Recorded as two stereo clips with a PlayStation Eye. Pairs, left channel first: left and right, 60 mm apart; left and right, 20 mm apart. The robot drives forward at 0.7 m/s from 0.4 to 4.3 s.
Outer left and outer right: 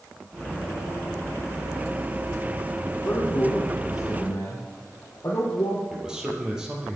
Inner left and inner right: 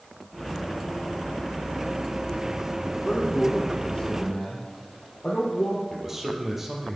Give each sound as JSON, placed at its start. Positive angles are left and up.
{"t": 3.0, "sound": "a man speaking", "side_deg": 50, "distance_m": 3.0}
{"t": 5.9, "sound": "a man speaking", "side_deg": -10, "distance_m": 3.0}